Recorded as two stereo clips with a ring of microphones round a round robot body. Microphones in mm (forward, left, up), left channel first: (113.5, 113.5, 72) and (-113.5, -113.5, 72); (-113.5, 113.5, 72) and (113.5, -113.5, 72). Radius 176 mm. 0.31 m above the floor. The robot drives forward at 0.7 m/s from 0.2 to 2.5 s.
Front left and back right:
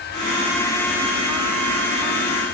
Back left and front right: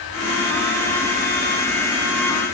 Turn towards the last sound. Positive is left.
No sound to turn to.